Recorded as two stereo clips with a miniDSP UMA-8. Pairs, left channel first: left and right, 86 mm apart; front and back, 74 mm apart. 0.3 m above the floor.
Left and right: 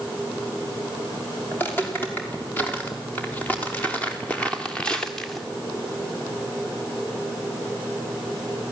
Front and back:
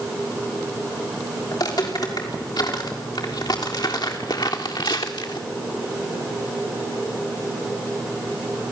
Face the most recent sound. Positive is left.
turn(degrees=5)